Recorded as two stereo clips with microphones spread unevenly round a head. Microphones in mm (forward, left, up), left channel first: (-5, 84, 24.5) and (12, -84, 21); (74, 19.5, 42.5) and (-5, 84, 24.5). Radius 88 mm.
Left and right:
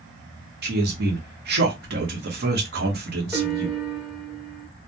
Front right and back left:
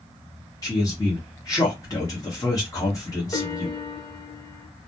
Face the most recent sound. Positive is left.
turn(degrees=0)